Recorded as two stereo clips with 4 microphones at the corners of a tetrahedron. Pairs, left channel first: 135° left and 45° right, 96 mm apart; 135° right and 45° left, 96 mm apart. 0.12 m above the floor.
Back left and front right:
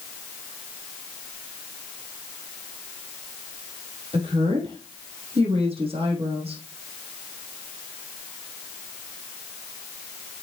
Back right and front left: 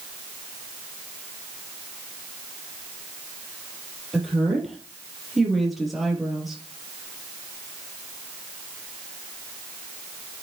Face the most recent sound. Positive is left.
turn(degrees=-45)